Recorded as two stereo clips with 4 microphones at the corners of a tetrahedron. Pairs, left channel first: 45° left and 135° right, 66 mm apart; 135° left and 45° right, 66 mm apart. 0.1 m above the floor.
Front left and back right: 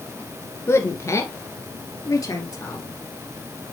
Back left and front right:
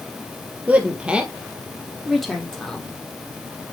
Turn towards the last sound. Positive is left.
turn(degrees=55)